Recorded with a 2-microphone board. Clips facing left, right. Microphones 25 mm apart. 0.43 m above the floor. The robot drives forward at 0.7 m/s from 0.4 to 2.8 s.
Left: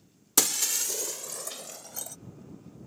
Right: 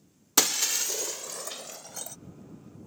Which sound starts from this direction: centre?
Breaking glass, at 0.4 s.